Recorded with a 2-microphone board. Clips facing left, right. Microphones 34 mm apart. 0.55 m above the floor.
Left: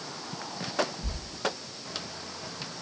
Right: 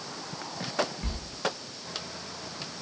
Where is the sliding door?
60° right (ahead or behind), 7.5 m.